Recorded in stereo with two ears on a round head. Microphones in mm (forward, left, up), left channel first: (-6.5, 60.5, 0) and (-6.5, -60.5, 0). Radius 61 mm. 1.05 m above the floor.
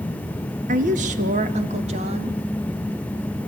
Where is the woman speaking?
60° right (ahead or behind), 1.2 m; by 2.4 s 45° right (ahead or behind), 2 m.